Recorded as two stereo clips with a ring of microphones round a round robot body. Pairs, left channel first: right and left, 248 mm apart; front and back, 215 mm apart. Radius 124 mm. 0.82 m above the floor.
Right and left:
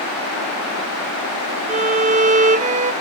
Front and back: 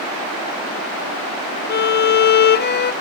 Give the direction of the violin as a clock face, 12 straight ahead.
11 o'clock.